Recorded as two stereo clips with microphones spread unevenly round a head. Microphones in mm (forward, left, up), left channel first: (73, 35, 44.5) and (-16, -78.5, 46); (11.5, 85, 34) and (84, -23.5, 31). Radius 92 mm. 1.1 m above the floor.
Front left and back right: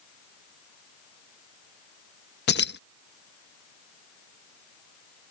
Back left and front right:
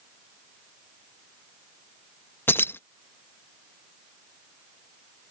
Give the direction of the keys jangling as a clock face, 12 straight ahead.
10 o'clock.